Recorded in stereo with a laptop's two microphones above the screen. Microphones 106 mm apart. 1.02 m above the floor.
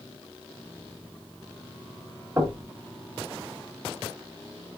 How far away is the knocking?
About 1.1 m.